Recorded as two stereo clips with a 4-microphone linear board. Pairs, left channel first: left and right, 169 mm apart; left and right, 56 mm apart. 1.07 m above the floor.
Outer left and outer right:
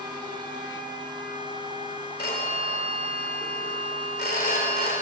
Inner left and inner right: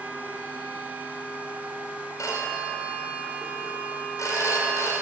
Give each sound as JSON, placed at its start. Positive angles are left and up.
{"t": 2.2, "sound": "a phone ringing", "side_deg": 75, "distance_m": 3.0}